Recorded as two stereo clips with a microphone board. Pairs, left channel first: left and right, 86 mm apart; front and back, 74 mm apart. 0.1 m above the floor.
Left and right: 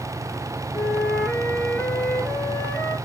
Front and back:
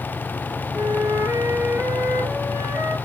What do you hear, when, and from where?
0.7 s a flute: 155° left, 1.4 m